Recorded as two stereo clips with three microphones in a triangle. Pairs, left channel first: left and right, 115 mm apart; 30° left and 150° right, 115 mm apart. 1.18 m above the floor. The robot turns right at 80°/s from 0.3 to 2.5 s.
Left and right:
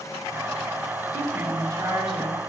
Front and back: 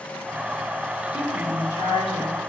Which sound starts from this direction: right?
A woman speaking, at 1.1 s.